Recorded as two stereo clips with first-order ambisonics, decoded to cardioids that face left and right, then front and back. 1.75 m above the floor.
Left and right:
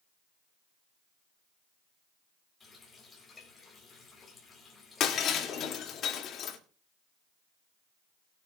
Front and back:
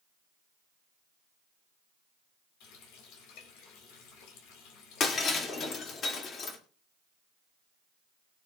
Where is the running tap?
15° left, 3.5 m.